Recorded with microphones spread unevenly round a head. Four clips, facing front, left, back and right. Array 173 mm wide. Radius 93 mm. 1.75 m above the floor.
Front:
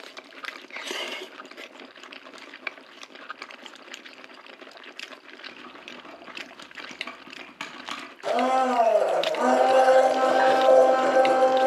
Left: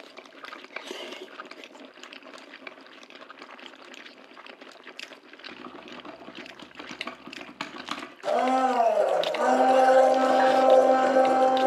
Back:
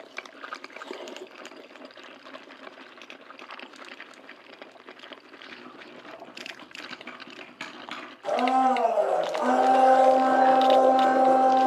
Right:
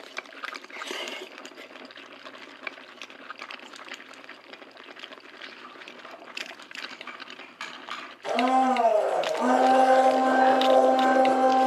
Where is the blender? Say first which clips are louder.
Right 1 dB, even; 45° left, 3 m.